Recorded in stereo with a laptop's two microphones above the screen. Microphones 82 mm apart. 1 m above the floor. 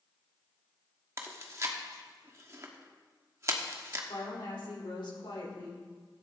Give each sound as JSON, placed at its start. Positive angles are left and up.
{"t": 1.2, "sound": "chewing", "side_deg": -35, "distance_m": 1.1}
{"t": 4.1, "sound": "a woman speaking", "side_deg": 80, "distance_m": 3.5}